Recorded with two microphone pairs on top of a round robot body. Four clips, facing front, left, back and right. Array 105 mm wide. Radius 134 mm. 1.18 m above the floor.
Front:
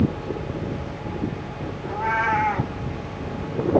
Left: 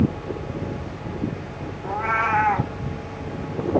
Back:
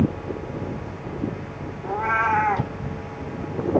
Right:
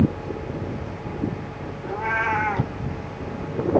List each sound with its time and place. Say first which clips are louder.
1.8 s a cat meowing: left 2 dB, back 1 dB; 125° left, 0.7 m